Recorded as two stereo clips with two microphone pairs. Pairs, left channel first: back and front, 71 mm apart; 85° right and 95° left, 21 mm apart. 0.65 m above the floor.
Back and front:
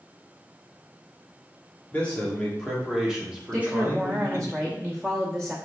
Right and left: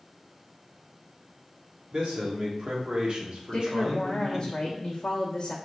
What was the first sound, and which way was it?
A man speaking, 115° left.